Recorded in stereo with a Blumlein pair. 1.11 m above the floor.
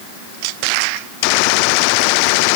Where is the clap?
I don't hear a clap.